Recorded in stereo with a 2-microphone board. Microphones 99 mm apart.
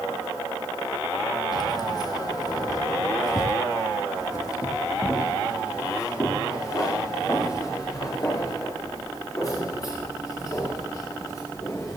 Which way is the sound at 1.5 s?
45° left (ahead or behind).